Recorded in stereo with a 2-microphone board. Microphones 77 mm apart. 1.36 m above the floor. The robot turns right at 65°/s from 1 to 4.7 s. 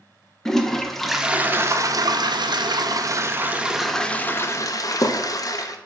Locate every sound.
0.5 s a toilet flushing: 175° left, 0.6 m; by 5.8 s 55° left, 0.6 m